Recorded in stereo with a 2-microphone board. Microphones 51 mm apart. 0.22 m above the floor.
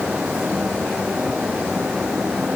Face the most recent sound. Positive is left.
No sound to turn to.